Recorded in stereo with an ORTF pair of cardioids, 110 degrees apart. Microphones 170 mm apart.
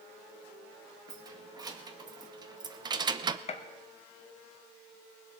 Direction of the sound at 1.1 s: 25° right.